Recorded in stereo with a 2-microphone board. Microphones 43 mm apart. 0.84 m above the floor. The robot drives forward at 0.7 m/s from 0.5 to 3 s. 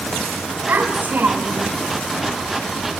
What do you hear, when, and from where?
0.7 s a child speaking: 50° right (ahead or behind), 5 m; by 1.7 s 60° right (ahead or behind), 4.5 m